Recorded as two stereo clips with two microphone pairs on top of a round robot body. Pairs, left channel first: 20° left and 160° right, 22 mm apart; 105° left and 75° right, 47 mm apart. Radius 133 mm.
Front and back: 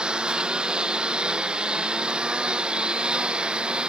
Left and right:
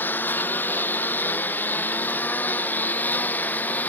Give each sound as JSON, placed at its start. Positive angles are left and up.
{"t": 0.0, "sound": "a lawn mower", "azimuth_deg": 150}